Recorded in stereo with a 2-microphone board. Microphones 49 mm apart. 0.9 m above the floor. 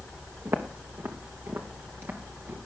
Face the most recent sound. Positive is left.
turn(degrees=-50)  # may be behind; listen again after turning